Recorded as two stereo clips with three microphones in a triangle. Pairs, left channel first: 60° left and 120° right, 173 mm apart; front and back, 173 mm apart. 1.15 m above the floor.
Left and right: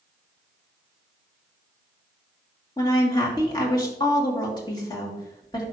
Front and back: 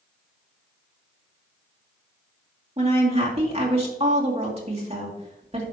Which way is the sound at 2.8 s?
125° left.